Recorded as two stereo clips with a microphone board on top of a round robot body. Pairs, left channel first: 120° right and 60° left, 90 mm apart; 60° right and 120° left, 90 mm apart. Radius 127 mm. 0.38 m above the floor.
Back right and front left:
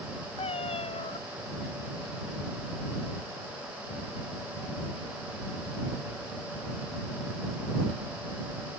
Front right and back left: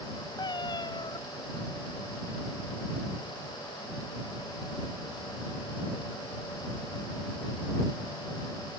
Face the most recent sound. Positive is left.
turn(degrees=-105)